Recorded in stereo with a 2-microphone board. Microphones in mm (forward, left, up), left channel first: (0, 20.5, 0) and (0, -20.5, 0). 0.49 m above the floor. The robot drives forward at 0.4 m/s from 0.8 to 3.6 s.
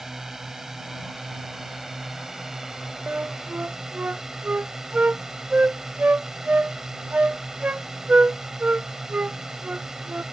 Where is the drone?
10° right (ahead or behind); by 10.3 s 15° right (ahead or behind).